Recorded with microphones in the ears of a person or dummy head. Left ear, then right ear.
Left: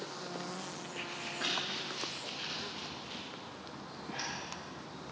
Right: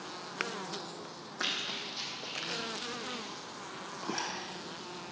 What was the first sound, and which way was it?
Running footsteps, 45° right (ahead or behind).